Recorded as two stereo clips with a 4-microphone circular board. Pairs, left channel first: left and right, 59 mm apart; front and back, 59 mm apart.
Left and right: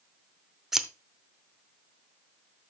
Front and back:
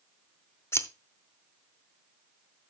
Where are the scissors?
10° right, 0.7 m.